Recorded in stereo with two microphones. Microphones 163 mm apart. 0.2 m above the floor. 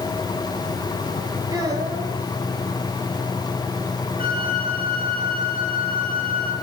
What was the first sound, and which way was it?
A child speaking, 20° right (ahead or behind).